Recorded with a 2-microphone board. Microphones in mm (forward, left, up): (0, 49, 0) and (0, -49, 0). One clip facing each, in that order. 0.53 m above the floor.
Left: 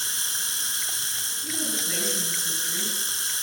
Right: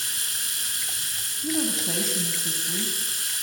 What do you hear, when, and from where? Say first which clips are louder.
0.0 s running water: left 2 dB; 25° left (ahead or behind), 1.7 m
1.4 s a woman speaking: right 7 dB; 40° right (ahead or behind), 4 m